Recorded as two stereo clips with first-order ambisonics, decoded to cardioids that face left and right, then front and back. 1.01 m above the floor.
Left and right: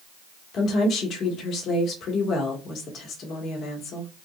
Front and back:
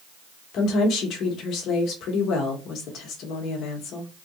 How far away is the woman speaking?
About 1.2 m.